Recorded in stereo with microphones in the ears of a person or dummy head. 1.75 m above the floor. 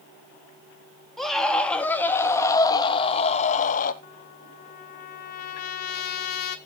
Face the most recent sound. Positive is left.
turn(degrees=55)  # may be behind; listen again after turning